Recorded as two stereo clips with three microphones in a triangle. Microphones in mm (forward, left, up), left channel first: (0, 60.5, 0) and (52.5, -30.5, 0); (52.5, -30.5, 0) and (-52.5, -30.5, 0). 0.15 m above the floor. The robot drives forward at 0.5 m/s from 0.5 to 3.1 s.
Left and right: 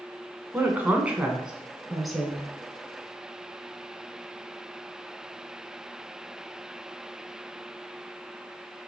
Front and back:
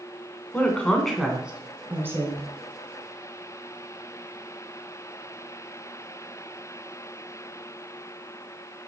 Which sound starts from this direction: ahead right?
A woman speaking, at 0.5 s.